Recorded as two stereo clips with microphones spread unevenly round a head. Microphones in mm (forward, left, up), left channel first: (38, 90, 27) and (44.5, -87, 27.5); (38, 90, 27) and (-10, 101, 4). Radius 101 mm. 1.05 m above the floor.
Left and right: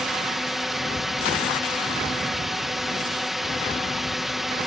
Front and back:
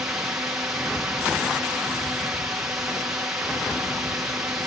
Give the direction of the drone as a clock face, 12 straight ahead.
6 o'clock.